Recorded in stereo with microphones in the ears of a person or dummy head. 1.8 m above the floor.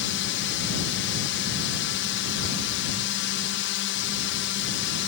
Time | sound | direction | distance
0.0 | a drone | 60° left (ahead or behind) | ?